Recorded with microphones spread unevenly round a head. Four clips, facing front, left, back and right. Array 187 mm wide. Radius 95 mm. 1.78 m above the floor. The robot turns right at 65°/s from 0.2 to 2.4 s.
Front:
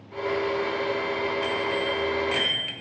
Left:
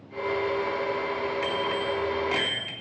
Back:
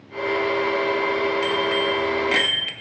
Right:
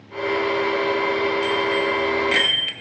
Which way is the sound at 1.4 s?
165° left.